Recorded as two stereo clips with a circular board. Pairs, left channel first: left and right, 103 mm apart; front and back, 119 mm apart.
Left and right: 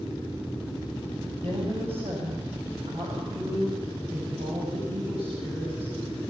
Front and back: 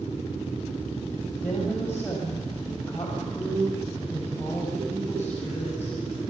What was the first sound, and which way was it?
A woman speaking, 70° right.